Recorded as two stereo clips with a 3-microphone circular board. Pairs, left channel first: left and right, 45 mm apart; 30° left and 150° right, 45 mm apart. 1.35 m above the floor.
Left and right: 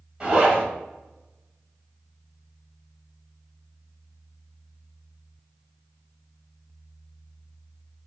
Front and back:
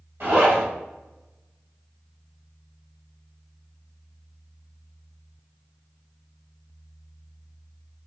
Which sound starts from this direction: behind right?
A zipper, at 0.2 s.